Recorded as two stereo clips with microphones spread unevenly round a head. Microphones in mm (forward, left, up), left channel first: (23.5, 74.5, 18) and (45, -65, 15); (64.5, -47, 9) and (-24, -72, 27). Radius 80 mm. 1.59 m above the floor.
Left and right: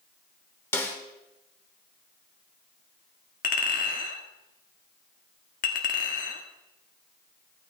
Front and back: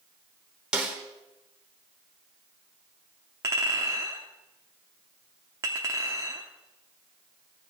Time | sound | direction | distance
0.7 | a snare drum | 155° left | 1.3 m
3.4 | a clink | 135° left | 1.7 m